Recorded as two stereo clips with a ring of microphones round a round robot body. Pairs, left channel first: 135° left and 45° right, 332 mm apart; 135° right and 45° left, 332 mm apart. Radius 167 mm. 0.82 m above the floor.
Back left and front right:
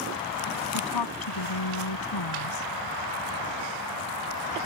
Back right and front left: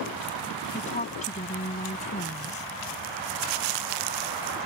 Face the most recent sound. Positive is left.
turn(degrees=155)